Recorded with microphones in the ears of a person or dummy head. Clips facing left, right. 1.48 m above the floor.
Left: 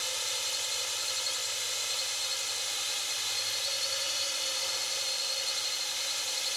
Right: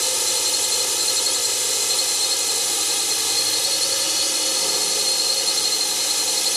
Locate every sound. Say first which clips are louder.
0.0 s a drone: right 13 dB; 70° right (ahead or behind)